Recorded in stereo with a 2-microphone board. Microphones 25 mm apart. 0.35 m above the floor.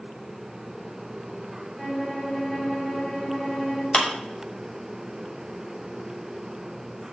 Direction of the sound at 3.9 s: 45° left (ahead or behind).